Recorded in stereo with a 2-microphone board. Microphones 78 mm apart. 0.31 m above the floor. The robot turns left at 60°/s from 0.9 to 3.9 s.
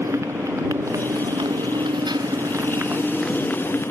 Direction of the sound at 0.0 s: 40° right.